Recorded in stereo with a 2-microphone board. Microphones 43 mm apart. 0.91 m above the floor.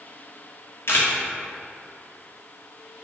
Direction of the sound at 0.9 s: 65° left (ahead or behind).